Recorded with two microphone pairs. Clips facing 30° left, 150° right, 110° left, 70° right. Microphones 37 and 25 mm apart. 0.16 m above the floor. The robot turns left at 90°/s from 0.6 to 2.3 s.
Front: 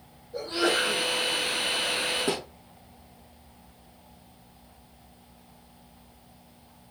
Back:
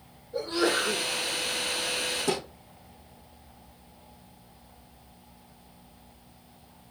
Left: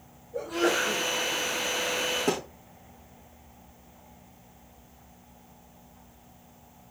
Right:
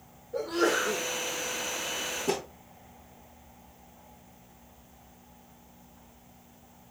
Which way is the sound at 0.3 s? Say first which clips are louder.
Even, even; 85° right.